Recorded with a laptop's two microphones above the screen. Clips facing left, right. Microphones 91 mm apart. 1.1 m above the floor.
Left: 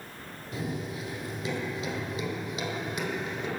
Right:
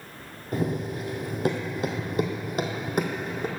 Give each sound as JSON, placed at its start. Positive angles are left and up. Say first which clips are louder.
{"t": 0.5, "sound": "running footsteps", "louder": "right 7 dB", "side_deg": -50, "distance_m": 1.8}